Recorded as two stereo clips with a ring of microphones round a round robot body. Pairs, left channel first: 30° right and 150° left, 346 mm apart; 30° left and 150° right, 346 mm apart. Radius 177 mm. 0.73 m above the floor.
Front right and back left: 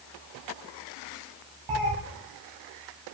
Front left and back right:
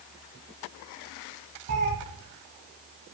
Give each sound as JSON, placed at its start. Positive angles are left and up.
{"t": 1.7, "sound": "a cat meowing", "azimuth_deg": 160, "distance_m": 1.6}